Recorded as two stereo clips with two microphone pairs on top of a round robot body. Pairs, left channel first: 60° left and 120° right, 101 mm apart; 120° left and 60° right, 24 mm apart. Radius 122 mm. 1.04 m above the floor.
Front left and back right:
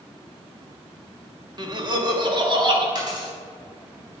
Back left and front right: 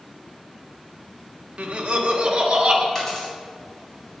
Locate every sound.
1.6 s laughter: 90° right, 1.5 m; by 2.9 s 95° right, 2.5 m
3.0 s a dropped coin: 165° right, 3.5 m